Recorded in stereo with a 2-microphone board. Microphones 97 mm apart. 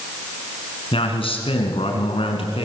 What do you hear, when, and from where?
0.9 s a man speaking: 70° left (ahead or behind), 4.5 m